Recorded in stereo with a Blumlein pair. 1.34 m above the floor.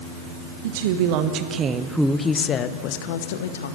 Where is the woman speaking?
55° right, 1.6 m; by 3.8 s 60° left, 1.9 m.